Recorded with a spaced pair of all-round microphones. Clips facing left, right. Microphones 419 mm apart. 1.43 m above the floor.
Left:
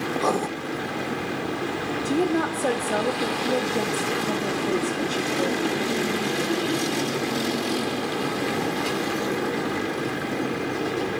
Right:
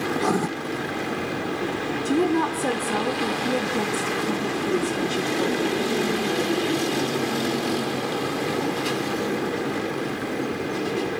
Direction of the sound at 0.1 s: 30° right (ahead or behind).